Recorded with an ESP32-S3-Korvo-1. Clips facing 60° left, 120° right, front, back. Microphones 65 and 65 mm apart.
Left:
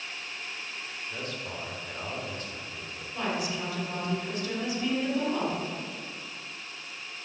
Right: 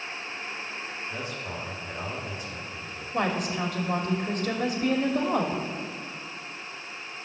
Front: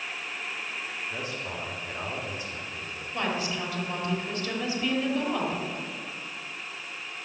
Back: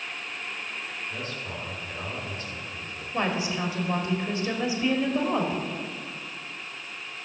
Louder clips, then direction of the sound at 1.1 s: Left 1 dB, front 1 dB; 55° right.